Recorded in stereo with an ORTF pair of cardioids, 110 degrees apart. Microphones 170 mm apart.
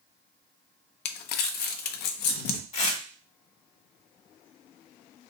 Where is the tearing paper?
40° left, 1.2 m.